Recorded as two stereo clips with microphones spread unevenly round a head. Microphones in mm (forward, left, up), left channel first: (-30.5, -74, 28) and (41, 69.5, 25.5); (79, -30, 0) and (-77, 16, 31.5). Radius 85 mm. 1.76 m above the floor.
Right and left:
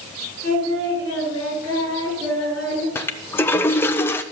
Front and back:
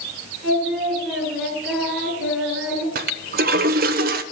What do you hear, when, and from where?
0.4 s singing: 70° left, 9.5 m
3.0 s a toilet flushing: 170° left, 0.7 m